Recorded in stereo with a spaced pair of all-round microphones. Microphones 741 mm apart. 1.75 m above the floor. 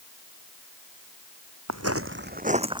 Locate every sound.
1.7 s footsteps: 20° right (ahead or behind); by 2.8 s 5° right (ahead or behind)